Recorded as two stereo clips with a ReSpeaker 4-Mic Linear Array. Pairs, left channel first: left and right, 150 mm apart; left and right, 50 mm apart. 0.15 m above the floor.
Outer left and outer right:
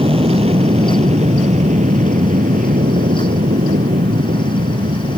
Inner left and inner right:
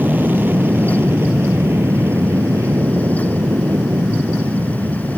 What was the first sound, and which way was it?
An aircraft, 40° right (ahead or behind).